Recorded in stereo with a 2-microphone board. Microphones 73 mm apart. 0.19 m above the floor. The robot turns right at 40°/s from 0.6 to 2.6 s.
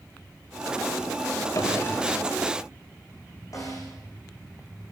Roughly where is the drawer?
Behind left.